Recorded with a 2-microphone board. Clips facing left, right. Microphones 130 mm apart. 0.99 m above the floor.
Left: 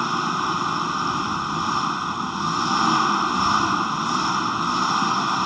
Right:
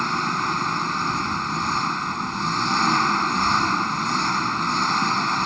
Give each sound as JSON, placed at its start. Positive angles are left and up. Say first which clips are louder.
{"t": 0.0, "sound": "an engine running", "louder": "left 1 dB", "side_deg": 10}